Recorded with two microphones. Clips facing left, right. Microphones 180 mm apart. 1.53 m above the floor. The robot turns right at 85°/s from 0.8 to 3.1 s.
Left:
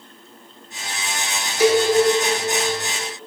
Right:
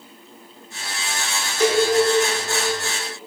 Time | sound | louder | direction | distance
1.6 | a cowbell | left 2 dB | 5° left (ahead or behind) | 1.3 m